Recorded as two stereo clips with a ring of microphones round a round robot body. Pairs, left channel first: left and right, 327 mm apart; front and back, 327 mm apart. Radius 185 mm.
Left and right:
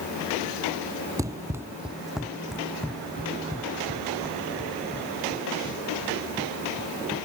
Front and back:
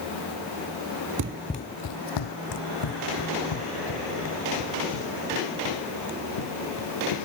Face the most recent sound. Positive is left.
turn(degrees=5)